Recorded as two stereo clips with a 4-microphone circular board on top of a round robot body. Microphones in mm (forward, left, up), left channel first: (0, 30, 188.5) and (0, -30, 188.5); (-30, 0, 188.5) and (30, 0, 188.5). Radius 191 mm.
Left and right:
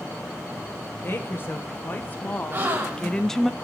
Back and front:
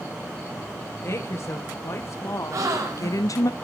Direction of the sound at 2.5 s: 30° right.